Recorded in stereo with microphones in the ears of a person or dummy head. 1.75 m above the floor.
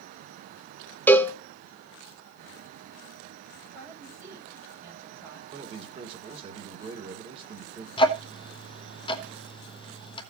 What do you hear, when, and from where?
1.1 s a cowbell: 10° left (ahead or behind), 0.8 m
3.7 s a woman speaking: 15° right (ahead or behind), 7 m
5.5 s a man speaking: 30° right (ahead or behind), 2.5 m
8.0 s ticking: 25° left (ahead or behind), 1.1 m